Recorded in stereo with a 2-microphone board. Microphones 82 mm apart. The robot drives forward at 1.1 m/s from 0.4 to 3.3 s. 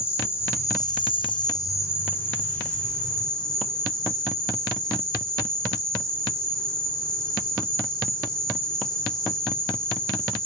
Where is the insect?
30° left (ahead or behind), 1.0 m; by 10.5 s 10° left (ahead or behind), 2.5 m.